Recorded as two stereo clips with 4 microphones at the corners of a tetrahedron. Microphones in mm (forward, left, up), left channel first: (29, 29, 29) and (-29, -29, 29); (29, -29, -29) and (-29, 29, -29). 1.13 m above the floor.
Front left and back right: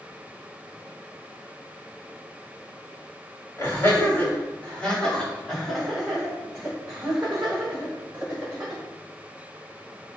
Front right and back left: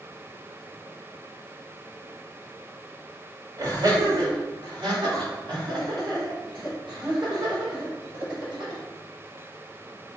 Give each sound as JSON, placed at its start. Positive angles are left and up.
{"t": 3.6, "sound": "laughter", "azimuth_deg": 100, "distance_m": 2.5}